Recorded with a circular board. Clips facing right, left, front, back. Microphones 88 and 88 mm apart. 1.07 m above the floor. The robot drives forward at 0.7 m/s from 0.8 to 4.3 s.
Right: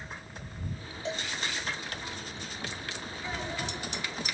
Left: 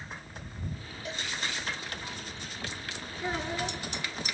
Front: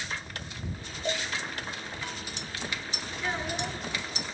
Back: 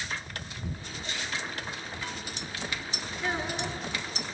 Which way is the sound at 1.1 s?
25° right.